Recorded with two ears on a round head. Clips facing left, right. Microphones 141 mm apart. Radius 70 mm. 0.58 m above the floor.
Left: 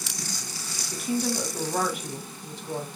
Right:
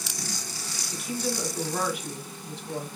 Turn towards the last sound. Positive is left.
turn(degrees=40)  # may be behind; listen again after turning